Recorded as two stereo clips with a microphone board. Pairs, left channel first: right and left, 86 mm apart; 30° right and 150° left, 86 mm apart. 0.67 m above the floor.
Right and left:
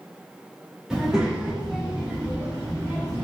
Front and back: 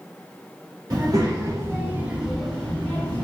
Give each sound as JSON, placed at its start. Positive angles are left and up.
{"t": 0.9, "sound": "a child speaking", "azimuth_deg": 170, "distance_m": 1.0}